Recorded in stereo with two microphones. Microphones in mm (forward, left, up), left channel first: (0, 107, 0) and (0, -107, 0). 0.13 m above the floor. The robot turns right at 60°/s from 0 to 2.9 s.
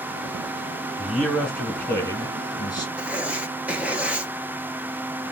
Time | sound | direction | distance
1.0 | a man speaking | 5° right (ahead or behind) | 1.0 m
3.0 | writing | 5° right (ahead or behind) | 0.7 m